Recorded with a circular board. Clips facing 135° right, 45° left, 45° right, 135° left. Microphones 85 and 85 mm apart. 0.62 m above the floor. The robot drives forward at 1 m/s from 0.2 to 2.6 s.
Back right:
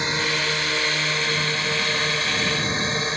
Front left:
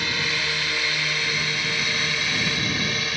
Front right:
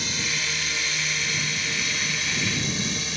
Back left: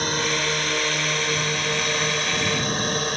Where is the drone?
160° left; by 3.2 s 165° left.